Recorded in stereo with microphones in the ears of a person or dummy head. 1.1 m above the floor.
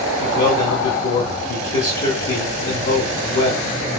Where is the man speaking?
40° left (ahead or behind), 2.5 m.